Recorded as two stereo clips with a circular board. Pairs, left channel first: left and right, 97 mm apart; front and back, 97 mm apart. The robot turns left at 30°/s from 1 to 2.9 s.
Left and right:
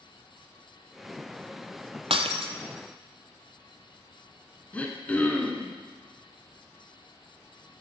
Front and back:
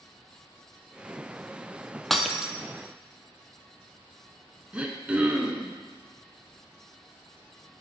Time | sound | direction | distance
2.1 | breaking glass | 85° right | 0.6 m
4.7 | throat clearing | 130° left | 1.1 m